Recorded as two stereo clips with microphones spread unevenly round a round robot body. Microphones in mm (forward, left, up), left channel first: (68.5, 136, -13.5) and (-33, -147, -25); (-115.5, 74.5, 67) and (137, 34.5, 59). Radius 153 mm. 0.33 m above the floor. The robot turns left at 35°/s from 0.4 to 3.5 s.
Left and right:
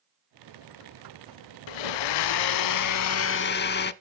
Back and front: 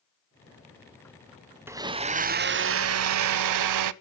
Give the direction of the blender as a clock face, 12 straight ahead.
10 o'clock.